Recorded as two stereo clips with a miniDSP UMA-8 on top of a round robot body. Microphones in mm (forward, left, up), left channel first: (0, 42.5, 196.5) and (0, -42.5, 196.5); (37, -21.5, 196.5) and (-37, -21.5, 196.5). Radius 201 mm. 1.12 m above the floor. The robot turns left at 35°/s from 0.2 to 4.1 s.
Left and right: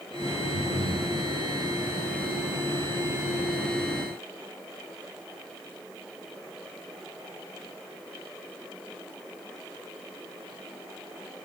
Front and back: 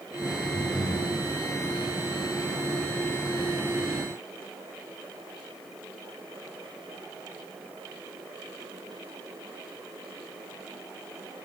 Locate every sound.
0.5 s breathing: 80° right, 4.5 m; by 1.1 s 100° right, 4.5 m